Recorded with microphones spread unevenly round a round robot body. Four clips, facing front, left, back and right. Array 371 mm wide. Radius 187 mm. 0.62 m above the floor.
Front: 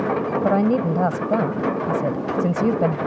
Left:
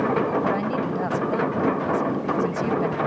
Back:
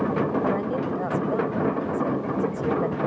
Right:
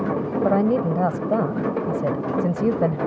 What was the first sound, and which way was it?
A woman speaking, 35° right.